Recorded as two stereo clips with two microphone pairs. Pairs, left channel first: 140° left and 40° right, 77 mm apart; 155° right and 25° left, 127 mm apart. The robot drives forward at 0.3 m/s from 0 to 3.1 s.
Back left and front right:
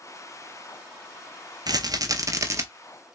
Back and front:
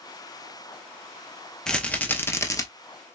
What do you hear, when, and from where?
1.7 s a rattle: 75° right, 0.8 m; by 2.6 s 95° right, 0.8 m